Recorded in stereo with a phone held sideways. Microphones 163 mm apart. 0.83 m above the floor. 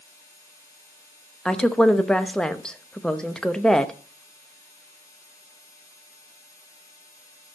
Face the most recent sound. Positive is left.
turn(degrees=5)  # may be behind; listen again after turning